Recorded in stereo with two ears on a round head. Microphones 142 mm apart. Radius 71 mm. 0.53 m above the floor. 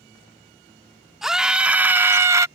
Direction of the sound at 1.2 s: 5° right (ahead or behind).